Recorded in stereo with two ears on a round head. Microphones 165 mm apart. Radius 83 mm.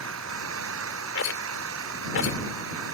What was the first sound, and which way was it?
An engine running, 85° right.